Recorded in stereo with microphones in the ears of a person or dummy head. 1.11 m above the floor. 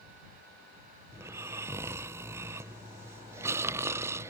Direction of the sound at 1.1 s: 20° right (ahead or behind).